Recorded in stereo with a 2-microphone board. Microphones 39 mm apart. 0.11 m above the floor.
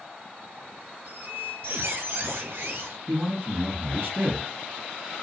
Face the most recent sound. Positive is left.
turn(degrees=-50)  # may be behind; listen again after turning